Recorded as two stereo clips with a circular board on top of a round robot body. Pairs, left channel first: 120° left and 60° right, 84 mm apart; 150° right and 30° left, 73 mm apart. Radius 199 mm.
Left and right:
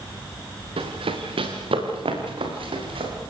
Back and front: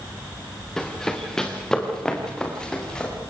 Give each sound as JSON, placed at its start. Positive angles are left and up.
{"t": 0.8, "sound": "running footsteps", "azimuth_deg": -65, "distance_m": 4.0}